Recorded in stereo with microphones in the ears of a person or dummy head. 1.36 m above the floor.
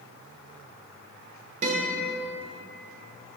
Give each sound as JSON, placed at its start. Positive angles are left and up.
{"t": 1.6, "sound": "a guitar", "side_deg": -45, "distance_m": 1.4}